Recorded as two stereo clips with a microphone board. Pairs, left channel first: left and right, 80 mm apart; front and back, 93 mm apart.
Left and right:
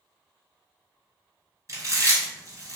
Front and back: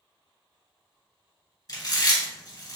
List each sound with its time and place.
1.7 s chewing: 45° right, 1.3 m